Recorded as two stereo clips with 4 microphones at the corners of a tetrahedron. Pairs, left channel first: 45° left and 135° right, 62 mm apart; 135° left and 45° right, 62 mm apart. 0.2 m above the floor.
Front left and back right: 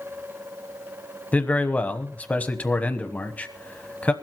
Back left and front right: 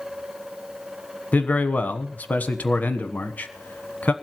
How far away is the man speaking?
About 1.1 m.